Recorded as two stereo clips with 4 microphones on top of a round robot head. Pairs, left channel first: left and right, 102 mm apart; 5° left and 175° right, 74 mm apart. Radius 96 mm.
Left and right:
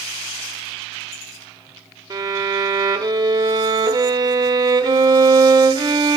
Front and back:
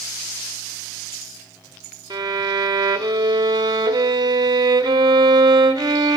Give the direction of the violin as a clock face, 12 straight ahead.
5 o'clock.